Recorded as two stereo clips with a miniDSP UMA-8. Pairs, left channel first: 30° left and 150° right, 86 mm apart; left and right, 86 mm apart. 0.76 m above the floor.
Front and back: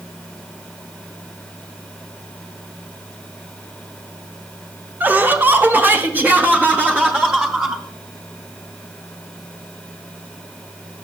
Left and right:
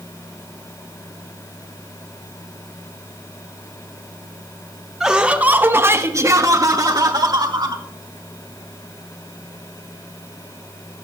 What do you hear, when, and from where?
5.0 s laughter: 165° right, 1.0 m; by 7.8 s 80° right, 1.7 m